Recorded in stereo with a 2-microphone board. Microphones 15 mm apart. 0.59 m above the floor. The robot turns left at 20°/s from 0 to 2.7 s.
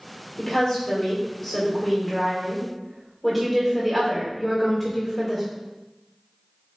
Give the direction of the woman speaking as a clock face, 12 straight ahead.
11 o'clock.